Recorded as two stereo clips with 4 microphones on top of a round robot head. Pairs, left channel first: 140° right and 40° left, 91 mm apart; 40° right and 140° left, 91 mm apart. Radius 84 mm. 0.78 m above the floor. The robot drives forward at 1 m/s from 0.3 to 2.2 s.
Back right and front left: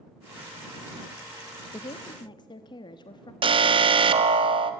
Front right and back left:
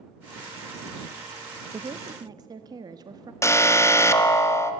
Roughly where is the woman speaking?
Behind.